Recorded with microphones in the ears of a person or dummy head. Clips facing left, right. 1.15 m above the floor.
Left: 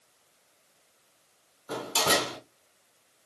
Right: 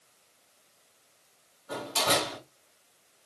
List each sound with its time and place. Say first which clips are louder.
1.7 s a door slam: left 1 dB; 45° left (ahead or behind), 1.7 m